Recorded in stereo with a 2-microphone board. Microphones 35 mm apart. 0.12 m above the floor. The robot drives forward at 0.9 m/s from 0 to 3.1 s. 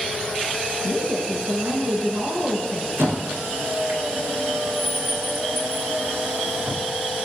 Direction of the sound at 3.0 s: 80° right.